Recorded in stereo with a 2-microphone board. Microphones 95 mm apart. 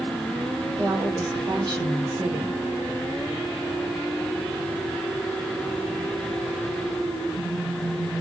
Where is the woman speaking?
45° right (ahead or behind), 2 m.